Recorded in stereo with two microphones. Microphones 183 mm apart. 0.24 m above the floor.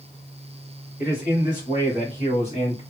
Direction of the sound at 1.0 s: 50° left (ahead or behind).